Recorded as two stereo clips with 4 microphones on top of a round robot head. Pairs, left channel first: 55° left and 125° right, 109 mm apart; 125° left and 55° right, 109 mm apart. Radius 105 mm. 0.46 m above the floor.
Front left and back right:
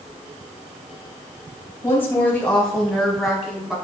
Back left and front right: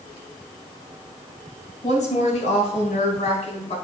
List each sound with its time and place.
1.8 s a woman speaking: 120° left, 3.5 m; by 3.8 s 150° left, 4.5 m